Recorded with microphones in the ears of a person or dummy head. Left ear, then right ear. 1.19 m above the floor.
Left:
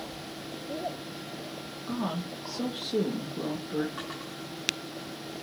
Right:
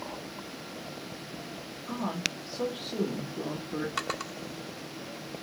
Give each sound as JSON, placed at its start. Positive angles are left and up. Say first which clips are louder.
{"t": 1.9, "sound": "a woman speaking", "louder": "right 2 dB", "side_deg": 35, "distance_m": 1.4}
{"t": 4.0, "sound": "a drawer", "louder": "right 5 dB", "side_deg": -70, "distance_m": 1.0}